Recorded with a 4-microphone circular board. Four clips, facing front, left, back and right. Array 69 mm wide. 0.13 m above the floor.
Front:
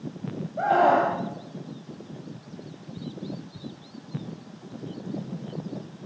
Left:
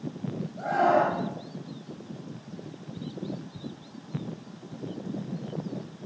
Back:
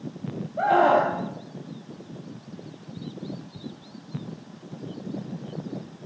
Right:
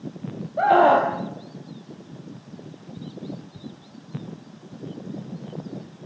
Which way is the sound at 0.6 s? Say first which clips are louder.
Right 7 dB, back 1 dB; 95° right.